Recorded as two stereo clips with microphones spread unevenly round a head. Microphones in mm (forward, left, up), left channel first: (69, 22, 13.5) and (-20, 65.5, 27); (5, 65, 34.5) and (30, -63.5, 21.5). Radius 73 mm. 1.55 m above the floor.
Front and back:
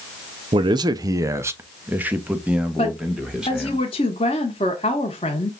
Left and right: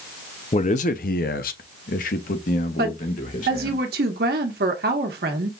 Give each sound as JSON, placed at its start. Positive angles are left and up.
{"t": 0.5, "sound": "a man speaking", "azimuth_deg": 140, "distance_m": 0.5}
{"t": 2.8, "sound": "a woman speaking", "azimuth_deg": -80, "distance_m": 1.3}